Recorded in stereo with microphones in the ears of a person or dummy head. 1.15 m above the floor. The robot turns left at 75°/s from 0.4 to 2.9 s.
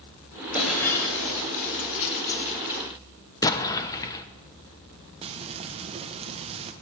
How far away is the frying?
About 0.5 m.